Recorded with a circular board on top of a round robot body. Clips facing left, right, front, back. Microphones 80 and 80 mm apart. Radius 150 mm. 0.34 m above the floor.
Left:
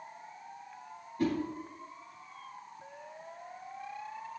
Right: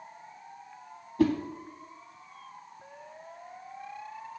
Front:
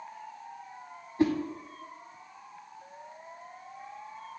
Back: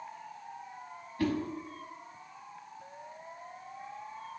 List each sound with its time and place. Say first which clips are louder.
1.2 s a whoosh: right 6 dB, front 5 dB; 70° right, 0.7 m